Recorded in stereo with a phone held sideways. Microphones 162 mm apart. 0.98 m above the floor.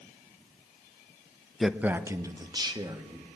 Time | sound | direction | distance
1.6 | a man speaking | centre (ahead or behind) | 0.5 m